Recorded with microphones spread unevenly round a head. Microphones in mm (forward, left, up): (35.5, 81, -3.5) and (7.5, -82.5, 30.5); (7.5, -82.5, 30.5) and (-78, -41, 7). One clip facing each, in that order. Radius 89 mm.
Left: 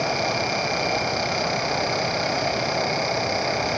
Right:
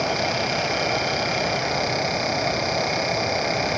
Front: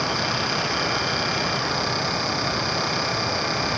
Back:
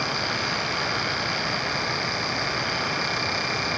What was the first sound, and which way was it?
Only background noise.